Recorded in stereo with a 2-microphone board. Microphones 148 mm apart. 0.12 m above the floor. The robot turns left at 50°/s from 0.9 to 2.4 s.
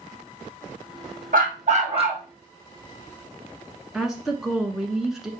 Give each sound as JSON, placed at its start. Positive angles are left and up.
{"t": 1.3, "sound": "a dog barking", "azimuth_deg": -100, "distance_m": 2.0}
{"t": 3.9, "sound": "a woman speaking", "side_deg": -5, "distance_m": 1.4}